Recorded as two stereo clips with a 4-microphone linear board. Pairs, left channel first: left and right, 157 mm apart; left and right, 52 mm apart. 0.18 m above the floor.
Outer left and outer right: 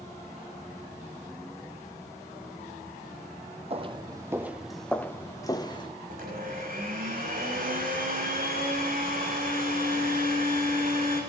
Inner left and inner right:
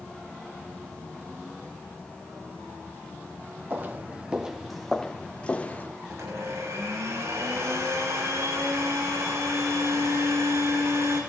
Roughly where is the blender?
Right.